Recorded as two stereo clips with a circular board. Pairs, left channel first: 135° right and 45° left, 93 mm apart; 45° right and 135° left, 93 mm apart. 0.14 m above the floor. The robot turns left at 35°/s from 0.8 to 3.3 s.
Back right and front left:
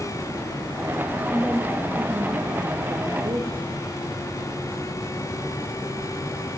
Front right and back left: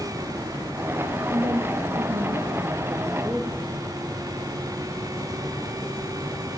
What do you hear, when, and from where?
1.3 s a woman speaking: 140° left, 4.5 m; by 3.8 s 70° left, 4.5 m